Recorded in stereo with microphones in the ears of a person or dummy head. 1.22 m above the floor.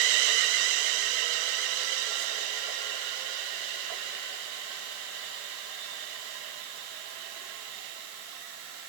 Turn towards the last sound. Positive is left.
No sound to turn to.